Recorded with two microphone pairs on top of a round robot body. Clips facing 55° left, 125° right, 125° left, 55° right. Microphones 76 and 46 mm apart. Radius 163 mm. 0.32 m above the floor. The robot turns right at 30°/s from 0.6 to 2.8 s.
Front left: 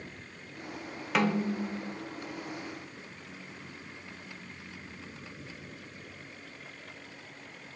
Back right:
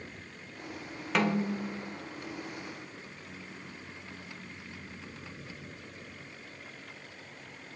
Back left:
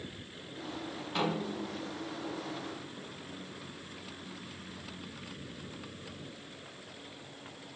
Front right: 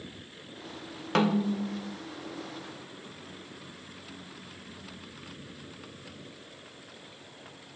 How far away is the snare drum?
About 0.6 m.